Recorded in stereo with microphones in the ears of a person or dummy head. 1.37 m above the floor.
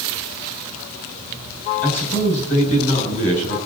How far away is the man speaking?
About 7 m.